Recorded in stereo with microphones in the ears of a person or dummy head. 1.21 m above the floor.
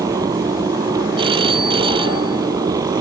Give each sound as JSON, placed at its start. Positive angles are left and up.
{"t": 0.0, "sound": "a motorcycle", "side_deg": -15}
{"t": 1.2, "sound": "a phone ringing", "side_deg": -25}